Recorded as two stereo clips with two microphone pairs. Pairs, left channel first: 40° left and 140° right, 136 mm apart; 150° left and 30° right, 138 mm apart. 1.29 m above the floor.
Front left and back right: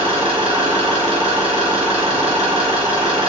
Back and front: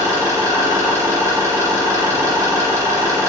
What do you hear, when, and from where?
0.0 s an engine running: 100° right, 1.4 m